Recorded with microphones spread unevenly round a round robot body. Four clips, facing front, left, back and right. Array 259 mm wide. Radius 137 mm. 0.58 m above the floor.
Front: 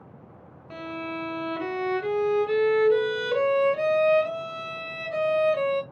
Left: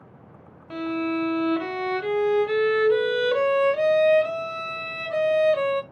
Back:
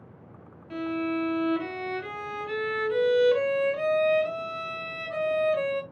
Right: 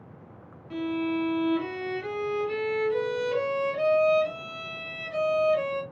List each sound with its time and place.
0.7 s a violin: 60° left, 0.8 m